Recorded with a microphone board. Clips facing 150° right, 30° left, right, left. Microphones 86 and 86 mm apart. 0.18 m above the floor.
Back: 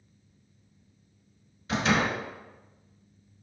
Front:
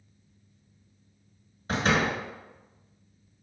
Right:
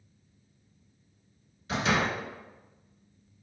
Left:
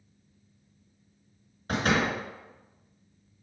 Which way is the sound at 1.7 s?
70° left.